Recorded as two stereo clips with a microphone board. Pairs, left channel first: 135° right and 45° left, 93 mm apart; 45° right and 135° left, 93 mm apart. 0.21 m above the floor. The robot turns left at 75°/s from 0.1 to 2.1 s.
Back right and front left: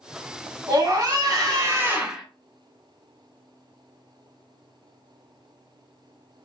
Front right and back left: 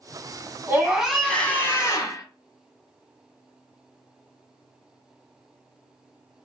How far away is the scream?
About 1.2 m.